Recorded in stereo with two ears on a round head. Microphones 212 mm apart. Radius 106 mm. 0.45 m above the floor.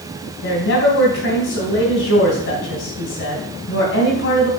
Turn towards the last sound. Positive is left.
turn(degrees=55)  # may be behind; listen again after turning